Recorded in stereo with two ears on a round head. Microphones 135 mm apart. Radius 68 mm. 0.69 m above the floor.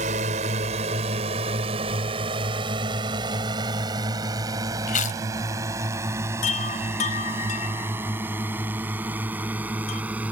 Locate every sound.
0.0 s a drone: 50° right (ahead or behind); by 10.3 s 10° right (ahead or behind)
4.9 s chewing: 55° left (ahead or behind)
6.4 s a chime: 55° left (ahead or behind)